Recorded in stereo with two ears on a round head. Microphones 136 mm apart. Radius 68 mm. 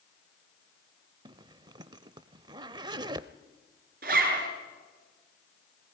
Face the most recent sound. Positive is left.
turn(degrees=-65)  # may be behind; listen again after turning